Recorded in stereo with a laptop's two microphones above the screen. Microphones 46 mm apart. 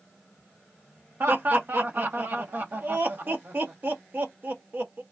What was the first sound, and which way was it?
Laughter, 50° right (ahead or behind).